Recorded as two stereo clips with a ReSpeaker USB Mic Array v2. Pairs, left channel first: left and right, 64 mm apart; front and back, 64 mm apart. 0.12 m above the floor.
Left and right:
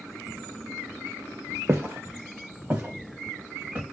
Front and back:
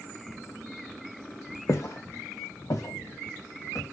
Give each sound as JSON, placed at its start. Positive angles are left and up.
{"t": 1.7, "sound": "footsteps", "azimuth_deg": -35, "distance_m": 0.8}